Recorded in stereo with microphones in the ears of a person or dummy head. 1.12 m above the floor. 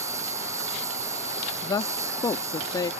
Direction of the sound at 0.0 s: 20° right (ahead or behind).